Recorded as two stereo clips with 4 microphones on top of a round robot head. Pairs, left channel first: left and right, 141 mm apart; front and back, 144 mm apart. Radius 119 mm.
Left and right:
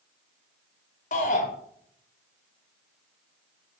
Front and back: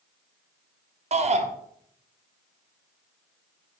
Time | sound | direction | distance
1.1 | a shout | 135° left | 2 m